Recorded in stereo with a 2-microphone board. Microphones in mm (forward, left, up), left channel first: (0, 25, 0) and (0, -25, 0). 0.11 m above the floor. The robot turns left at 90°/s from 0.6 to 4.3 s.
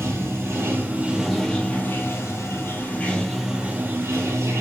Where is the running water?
110° right, 0.7 m; by 4.6 s 85° right, 0.7 m.